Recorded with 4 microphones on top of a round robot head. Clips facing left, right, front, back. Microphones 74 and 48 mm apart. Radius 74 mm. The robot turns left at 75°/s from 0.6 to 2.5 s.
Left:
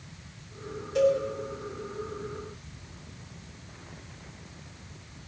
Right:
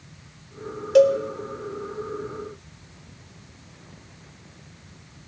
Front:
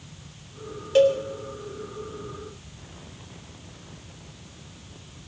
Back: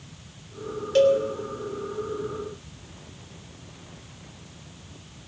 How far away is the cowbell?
About 0.9 m.